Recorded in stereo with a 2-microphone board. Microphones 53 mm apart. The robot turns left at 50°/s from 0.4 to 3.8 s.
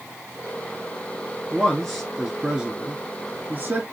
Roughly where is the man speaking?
Ahead.